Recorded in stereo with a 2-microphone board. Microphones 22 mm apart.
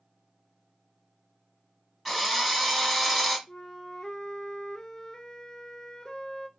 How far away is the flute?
About 0.5 m.